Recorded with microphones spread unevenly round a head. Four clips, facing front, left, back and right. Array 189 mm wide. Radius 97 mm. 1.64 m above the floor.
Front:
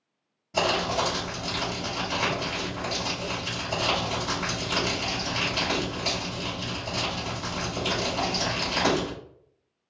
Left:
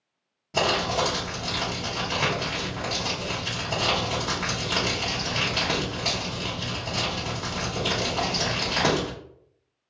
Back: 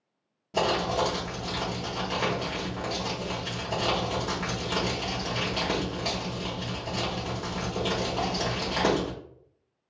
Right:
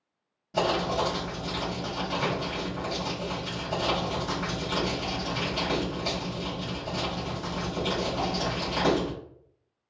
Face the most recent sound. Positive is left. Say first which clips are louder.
# left 1 dB, even
turn(degrees=125)